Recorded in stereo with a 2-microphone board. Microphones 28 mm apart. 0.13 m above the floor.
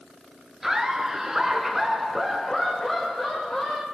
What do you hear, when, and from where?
0.6 s laughter: 15° right (ahead or behind), 2.0 m; by 3.8 s 10° left (ahead or behind), 2.5 m